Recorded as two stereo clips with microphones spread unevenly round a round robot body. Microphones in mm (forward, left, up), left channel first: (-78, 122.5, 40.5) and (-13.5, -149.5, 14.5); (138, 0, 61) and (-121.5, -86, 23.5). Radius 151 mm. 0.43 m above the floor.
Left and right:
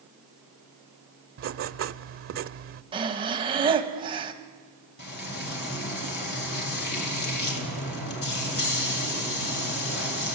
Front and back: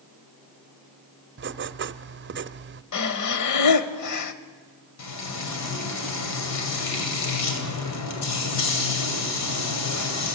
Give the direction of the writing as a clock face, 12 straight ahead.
4 o'clock.